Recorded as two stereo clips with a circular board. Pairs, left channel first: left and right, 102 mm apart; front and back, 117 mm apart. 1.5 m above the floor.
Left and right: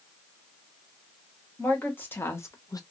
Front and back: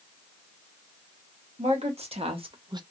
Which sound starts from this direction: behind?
A woman speaking, at 1.6 s.